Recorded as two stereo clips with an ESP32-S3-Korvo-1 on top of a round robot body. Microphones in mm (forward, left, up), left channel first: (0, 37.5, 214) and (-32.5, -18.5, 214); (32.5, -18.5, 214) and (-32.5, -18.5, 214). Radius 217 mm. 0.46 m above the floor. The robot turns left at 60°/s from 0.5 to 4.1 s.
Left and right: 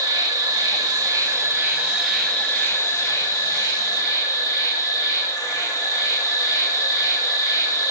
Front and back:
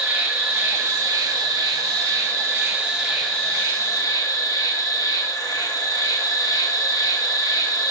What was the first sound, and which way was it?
An insect, 115° right.